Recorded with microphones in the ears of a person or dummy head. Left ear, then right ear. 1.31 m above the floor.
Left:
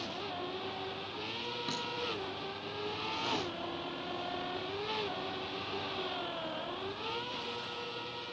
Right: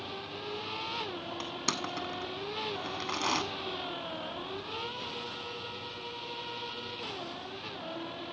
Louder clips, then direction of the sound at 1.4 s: Right 5 dB; 55° right (ahead or behind).